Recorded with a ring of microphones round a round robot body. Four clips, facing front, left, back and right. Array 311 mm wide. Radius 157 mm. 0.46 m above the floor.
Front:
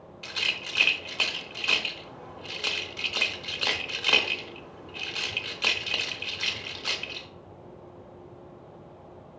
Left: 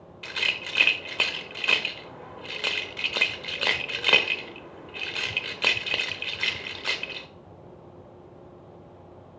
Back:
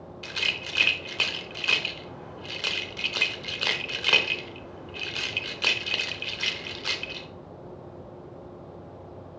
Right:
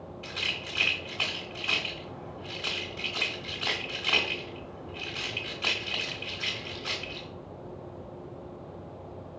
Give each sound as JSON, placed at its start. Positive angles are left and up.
{"t": 0.2, "sound": "a rattle", "azimuth_deg": 100, "distance_m": 0.8}